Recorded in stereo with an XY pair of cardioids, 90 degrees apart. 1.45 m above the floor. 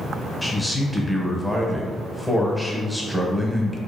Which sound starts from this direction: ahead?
A man speaking, at 0.4 s.